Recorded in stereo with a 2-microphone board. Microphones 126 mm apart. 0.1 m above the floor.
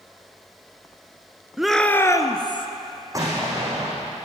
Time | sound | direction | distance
1.6 | a shout | 5° right (ahead or behind) | 1.1 m
3.1 | an explosion | 25° right (ahead or behind) | 6 m